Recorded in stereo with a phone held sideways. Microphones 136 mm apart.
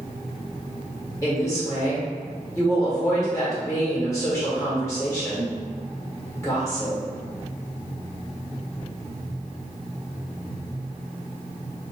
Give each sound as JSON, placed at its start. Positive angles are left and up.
{"t": 1.2, "sound": "a woman speaking", "side_deg": 20, "distance_m": 1.5}